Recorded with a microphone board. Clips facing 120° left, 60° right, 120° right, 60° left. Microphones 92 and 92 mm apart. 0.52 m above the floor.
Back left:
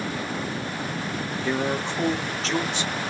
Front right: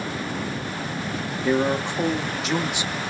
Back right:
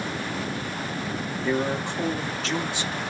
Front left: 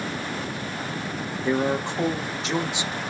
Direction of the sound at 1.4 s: 5° left.